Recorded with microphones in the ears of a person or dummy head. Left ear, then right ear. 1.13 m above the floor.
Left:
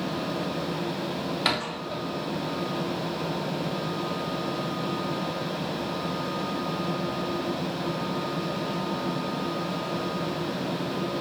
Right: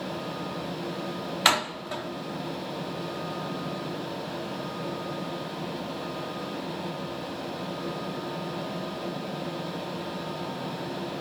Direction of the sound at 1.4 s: 40° right (ahead or behind).